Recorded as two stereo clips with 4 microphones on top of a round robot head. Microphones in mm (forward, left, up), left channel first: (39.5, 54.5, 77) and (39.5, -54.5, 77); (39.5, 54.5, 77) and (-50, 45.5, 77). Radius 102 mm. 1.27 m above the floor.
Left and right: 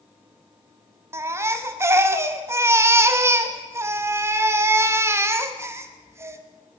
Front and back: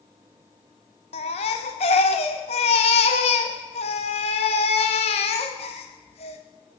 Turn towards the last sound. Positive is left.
turn(degrees=-25)